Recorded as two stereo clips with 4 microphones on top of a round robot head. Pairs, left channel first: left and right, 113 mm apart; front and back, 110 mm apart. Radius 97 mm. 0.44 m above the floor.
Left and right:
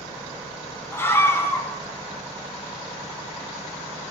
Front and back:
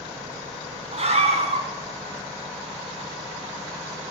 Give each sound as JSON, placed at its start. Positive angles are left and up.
{"t": 0.9, "sound": "a scream", "azimuth_deg": 160, "distance_m": 4.0}